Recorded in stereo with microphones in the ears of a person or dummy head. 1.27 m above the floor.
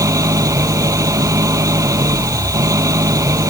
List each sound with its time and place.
0.0 s an engine running: 20° right (ahead or behind)